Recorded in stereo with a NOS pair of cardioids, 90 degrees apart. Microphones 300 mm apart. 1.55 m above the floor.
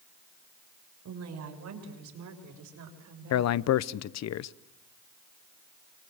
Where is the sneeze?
No sneeze in this recording.